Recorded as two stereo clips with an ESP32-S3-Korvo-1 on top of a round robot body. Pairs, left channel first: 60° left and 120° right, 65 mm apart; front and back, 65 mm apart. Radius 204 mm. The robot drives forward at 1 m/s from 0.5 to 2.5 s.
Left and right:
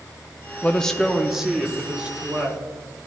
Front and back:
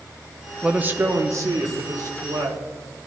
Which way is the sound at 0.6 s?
115° left.